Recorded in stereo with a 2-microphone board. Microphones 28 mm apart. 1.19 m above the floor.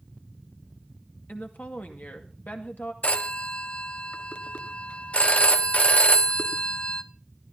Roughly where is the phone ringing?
Left.